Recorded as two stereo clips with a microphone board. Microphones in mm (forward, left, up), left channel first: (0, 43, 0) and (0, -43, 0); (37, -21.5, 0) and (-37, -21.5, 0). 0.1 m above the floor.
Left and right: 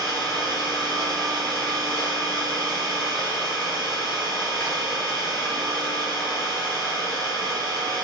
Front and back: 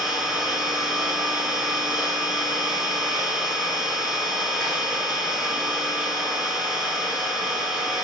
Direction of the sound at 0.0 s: 125° left.